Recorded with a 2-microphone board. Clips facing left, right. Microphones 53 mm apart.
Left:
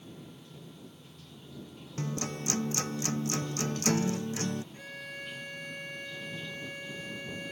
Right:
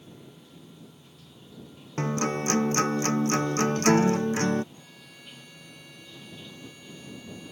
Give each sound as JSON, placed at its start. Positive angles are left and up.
{"t": 0.0, "sound": "running water", "side_deg": -5}
{"t": 2.0, "sound": "a guitar", "side_deg": -45}
{"t": 4.7, "sound": "a violin", "side_deg": 50}